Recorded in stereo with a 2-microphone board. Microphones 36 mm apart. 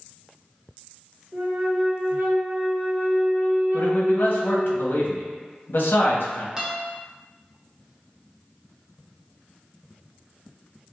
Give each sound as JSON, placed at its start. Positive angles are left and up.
{"t": 1.3, "sound": "a flute", "side_deg": -55, "distance_m": 1.6}
{"t": 3.7, "sound": "a man speaking", "side_deg": 70, "distance_m": 1.0}
{"t": 6.6, "sound": "a guitar", "side_deg": -15, "distance_m": 1.0}